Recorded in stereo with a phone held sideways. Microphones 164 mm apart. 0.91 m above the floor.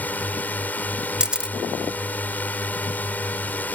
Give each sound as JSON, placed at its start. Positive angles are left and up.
{"t": 0.0, "sound": "a drone", "side_deg": 10}
{"t": 1.2, "sound": "a camera shutter", "side_deg": -5}